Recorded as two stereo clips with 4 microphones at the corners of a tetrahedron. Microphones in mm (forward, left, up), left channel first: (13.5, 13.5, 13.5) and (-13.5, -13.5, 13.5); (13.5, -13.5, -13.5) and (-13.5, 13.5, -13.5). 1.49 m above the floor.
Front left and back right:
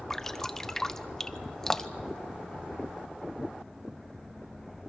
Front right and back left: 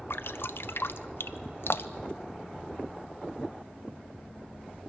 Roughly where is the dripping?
Ahead right.